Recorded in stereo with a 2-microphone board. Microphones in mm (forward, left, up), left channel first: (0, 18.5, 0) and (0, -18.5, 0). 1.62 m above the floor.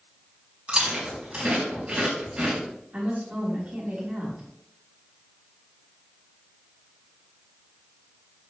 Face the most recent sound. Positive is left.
turn(degrees=-40)  # may be behind; listen again after turning